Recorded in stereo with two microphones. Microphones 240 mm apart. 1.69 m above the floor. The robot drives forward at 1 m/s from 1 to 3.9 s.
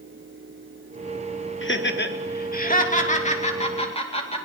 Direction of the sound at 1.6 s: 55° left (ahead or behind).